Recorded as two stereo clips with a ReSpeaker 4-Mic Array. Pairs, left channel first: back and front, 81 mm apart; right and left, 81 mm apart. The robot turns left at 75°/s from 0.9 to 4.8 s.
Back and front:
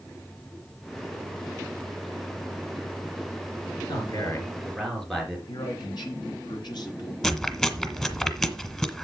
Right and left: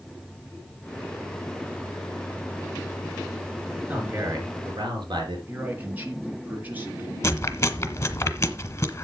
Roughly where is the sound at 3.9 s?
Behind.